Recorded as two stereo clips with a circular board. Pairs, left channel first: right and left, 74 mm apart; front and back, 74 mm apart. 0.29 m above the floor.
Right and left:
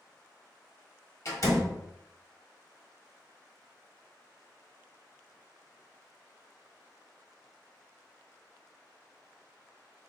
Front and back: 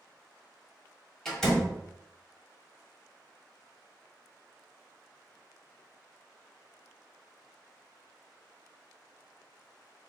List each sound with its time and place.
1.2 s a door slam: 80° right, 1.3 m